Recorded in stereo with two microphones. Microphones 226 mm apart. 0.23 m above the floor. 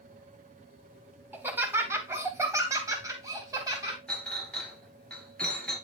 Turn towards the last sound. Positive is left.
turn(degrees=5)  # may be behind; listen again after turning